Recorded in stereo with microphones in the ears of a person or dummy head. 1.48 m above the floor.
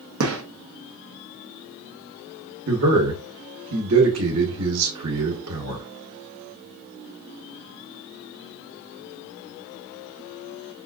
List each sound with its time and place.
0.2 s a gunshot: 75° right (ahead or behind), 0.9 m
2.7 s a man speaking: 75° right (ahead or behind), 1.3 m